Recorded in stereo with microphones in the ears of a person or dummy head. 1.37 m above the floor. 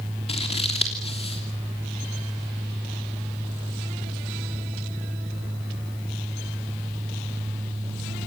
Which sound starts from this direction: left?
Scissors, at 0.3 s.